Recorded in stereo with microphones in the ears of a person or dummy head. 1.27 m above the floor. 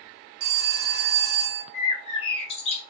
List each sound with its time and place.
0.4 s a phone ringing: 50° right (ahead or behind), 1.0 m
1.7 s a bird: 40° left (ahead or behind), 1.0 m